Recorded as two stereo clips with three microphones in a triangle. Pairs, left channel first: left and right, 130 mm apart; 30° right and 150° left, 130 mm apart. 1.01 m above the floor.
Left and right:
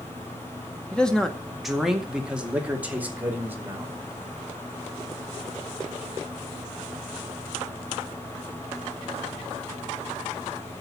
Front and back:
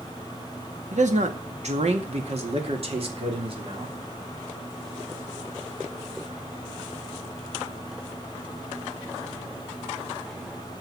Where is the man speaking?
170° left, 1.8 m; by 4.0 s 165° right, 3 m.